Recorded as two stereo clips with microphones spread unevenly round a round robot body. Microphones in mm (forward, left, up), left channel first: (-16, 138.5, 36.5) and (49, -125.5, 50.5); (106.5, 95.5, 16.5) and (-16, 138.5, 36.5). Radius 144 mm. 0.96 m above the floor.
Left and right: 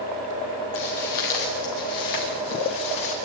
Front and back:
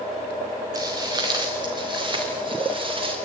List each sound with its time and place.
0.8 s footsteps: 100° left, 5.5 m; by 3.1 s 115° left, 8 m